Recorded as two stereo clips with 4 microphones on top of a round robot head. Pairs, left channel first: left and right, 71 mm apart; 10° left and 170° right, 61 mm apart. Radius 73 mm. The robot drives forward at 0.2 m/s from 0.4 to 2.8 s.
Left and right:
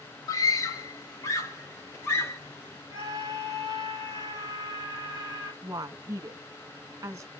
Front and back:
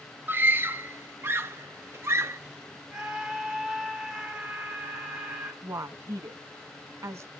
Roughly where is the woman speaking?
Behind right.